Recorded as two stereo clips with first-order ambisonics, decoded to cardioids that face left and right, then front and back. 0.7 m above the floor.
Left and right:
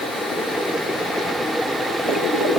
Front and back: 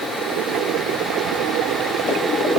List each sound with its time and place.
Only background noise.